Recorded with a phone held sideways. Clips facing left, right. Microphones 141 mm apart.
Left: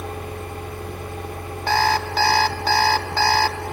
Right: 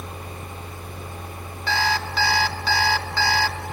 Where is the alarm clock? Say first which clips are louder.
Left 5 dB; 45° left (ahead or behind), 1.0 m.